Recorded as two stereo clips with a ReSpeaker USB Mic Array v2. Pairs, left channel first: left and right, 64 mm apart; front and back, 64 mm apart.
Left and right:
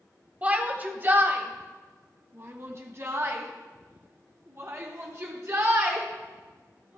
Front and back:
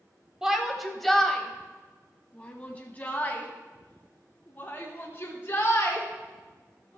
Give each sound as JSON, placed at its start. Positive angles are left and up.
{"t": 0.4, "sound": "a shout", "azimuth_deg": -110, "distance_m": 1.1}